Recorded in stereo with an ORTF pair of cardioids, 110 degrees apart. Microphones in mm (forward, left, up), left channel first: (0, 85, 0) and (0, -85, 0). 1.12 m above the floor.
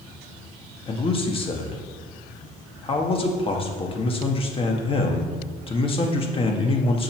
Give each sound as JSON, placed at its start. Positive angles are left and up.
{"t": 0.9, "sound": "a man speaking", "azimuth_deg": 30, "distance_m": 1.3}